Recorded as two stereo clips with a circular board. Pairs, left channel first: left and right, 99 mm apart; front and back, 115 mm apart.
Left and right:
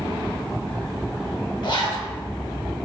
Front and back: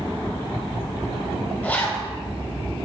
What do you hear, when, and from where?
1.6 s a zipper: 70° left, 1.1 m